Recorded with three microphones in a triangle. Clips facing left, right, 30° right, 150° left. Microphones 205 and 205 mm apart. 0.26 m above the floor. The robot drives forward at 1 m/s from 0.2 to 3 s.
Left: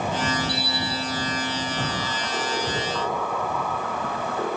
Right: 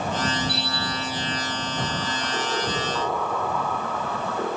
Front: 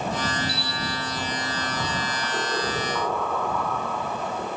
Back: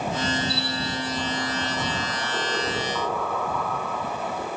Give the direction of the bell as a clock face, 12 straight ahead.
9 o'clock.